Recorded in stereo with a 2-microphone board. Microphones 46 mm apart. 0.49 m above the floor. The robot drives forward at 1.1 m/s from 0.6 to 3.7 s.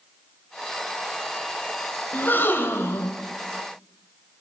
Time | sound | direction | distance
2.1 | a gasp | 40° left (ahead or behind) | 1.7 m